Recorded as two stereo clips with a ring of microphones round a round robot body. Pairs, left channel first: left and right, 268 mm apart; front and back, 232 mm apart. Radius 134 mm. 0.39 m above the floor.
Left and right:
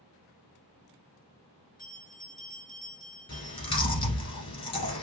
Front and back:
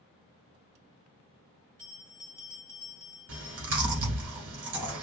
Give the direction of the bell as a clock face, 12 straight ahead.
7 o'clock.